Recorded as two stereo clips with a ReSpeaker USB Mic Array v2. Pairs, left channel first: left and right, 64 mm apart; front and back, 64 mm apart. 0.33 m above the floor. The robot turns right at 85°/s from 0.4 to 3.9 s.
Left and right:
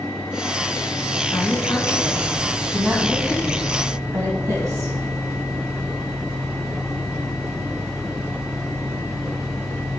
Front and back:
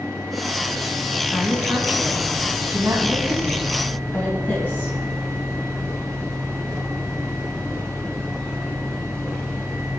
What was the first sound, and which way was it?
A woman speaking, 80° left.